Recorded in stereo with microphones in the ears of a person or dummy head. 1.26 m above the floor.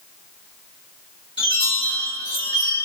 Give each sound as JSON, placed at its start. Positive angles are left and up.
{"t": 1.4, "sound": "a chime", "side_deg": 25, "distance_m": 1.7}